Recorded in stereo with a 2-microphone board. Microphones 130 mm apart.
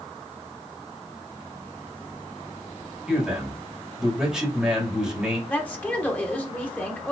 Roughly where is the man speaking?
Centre.